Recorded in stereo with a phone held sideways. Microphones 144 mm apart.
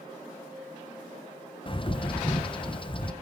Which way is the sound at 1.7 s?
35° left (ahead or behind).